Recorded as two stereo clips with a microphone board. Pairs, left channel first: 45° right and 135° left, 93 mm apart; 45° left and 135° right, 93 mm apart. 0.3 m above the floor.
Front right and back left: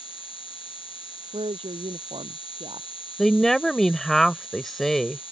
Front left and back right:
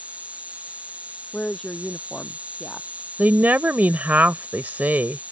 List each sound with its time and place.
0.0 s an insect: 60° right
1.3 s a woman speaking: 130° left
3.2 s a woman speaking: 125° right